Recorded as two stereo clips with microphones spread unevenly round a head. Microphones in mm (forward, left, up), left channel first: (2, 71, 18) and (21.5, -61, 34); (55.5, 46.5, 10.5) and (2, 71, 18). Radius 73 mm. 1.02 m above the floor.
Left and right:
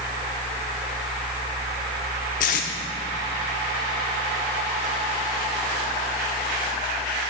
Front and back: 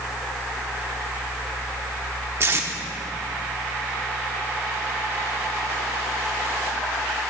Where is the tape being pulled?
130° left, 0.8 m.